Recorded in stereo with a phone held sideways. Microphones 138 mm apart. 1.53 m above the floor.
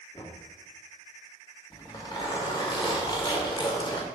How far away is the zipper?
About 1.4 m.